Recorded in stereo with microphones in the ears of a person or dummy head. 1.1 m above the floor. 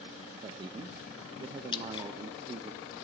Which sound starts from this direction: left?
Dripping, at 1.7 s.